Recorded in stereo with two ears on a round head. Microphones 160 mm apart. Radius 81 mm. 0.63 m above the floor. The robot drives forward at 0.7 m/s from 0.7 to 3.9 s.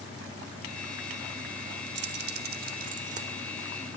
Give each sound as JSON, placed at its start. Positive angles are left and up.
{"t": 1.9, "sound": "keys jangling", "side_deg": -65, "distance_m": 1.0}